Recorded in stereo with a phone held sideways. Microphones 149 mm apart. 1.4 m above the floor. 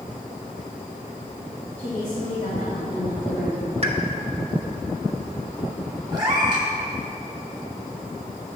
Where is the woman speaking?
50° left (ahead or behind), 2.5 m; by 3.7 s 60° left (ahead or behind), 1.3 m.